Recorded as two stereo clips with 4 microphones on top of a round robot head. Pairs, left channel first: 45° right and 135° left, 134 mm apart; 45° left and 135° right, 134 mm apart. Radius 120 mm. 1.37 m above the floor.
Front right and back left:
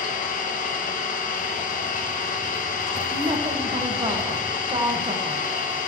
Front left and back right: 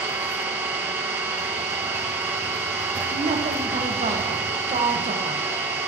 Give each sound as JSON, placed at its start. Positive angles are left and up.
{"t": 0.0, "sound": "an engine running", "azimuth_deg": -60, "distance_m": 1.7}
{"t": 3.1, "sound": "a woman speaking", "azimuth_deg": -170, "distance_m": 1.4}